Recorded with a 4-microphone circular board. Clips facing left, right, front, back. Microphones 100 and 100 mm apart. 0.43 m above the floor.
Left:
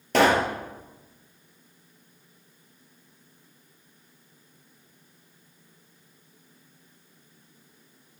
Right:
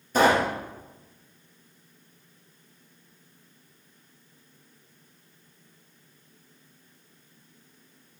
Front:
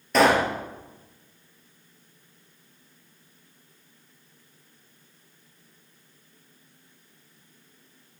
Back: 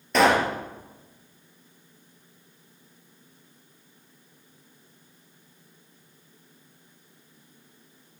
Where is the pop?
90° left, 3 m.